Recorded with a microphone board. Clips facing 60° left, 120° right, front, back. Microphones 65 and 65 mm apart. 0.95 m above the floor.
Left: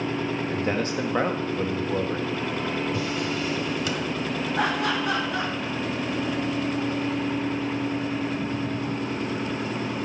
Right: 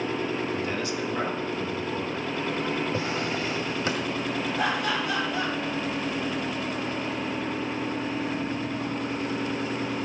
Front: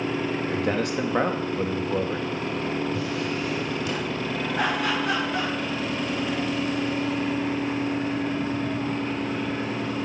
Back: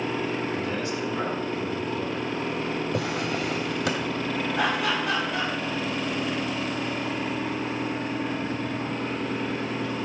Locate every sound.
0.5 s a man speaking: 15° left, 1.7 m
2.9 s a drawer: 175° right, 1.9 m
4.5 s laughter: 90° left, 7.5 m